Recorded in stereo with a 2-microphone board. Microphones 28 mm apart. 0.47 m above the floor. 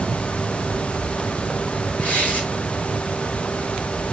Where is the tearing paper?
80° left, 6 m.